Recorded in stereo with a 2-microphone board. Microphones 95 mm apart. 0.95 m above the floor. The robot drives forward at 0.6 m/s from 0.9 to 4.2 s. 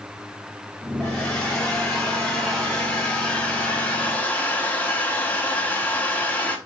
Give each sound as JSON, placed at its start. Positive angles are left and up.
{"t": 1.0, "sound": "a hair dryer", "side_deg": 10, "distance_m": 3.5}